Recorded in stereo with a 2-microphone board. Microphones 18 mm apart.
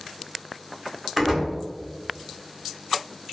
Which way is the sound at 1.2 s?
5° right (ahead or behind).